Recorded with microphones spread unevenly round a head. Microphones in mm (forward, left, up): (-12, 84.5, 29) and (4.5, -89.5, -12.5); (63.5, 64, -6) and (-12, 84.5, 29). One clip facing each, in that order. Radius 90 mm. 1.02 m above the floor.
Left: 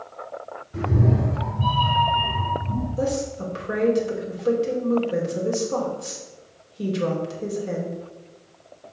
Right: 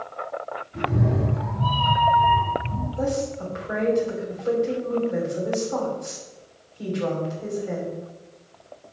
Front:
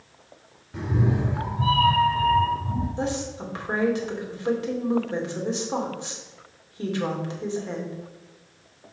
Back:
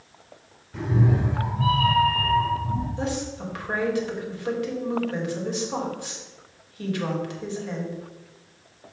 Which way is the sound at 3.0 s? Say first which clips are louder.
Right 1 dB, front 1 dB; 45° left.